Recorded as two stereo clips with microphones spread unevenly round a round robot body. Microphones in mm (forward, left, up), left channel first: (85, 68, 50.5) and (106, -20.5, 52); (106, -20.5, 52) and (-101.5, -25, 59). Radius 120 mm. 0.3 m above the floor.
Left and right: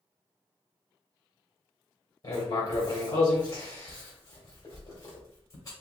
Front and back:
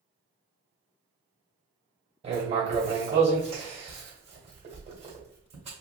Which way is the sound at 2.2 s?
130° left.